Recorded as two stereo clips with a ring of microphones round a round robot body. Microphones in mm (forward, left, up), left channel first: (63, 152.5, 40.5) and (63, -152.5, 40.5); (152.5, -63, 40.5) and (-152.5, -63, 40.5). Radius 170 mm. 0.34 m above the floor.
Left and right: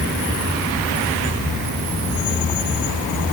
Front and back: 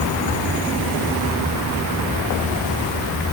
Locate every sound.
Only background noise.